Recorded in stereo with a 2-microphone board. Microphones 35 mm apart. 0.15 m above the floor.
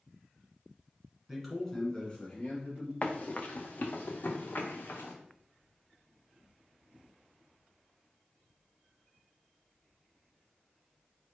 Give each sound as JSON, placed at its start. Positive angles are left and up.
{"t": 1.3, "sound": "a man speaking", "side_deg": -5, "distance_m": 1.7}
{"t": 3.0, "sound": "running footsteps", "side_deg": 40, "distance_m": 0.9}